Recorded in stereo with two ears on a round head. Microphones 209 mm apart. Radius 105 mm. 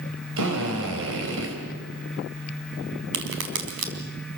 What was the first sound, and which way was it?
A drill, 60° right (ahead or behind).